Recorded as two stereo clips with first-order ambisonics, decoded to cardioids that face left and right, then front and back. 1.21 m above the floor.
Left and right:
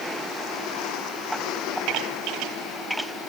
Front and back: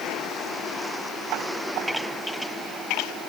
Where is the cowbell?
I don't hear a cowbell.